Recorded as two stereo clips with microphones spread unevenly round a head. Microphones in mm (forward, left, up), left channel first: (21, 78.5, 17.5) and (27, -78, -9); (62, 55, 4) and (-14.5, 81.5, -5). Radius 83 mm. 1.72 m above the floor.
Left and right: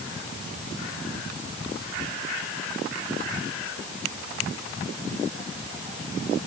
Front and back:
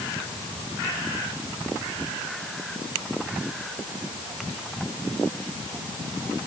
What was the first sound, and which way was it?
Only background noise.